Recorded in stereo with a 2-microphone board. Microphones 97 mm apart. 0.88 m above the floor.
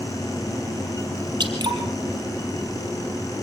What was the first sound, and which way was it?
Dripping, 50° right (ahead or behind).